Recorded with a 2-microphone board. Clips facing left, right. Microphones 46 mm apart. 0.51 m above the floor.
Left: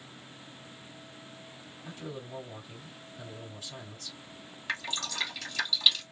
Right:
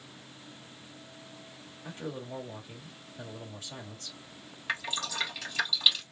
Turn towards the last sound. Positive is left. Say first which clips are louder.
# right 1 dB
turn(degrees=-10)  # may be behind; listen again after turning